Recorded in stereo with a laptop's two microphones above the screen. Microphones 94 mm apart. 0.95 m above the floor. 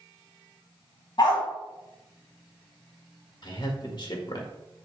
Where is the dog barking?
50° left (ahead or behind), 2 m.